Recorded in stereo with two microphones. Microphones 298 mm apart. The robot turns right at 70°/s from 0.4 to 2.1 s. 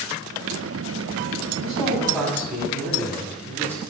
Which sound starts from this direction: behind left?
A man speaking, at 1.6 s.